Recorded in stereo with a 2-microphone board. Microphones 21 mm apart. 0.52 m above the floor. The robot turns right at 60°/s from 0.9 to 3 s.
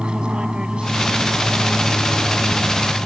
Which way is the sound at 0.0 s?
65° right (ahead or behind).